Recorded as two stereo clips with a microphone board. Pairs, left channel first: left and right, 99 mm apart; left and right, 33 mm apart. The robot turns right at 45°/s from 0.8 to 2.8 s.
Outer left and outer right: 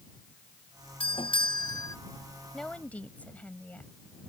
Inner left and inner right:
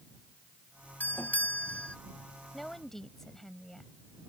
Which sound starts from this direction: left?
A doorbell, at 1.0 s.